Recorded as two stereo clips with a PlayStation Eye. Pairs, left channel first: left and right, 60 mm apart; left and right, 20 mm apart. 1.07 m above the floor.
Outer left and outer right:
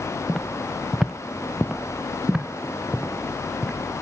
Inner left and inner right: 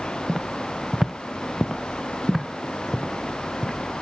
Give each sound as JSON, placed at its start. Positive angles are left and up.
{"t": 0.3, "sound": "footsteps", "side_deg": 0, "distance_m": 1.4}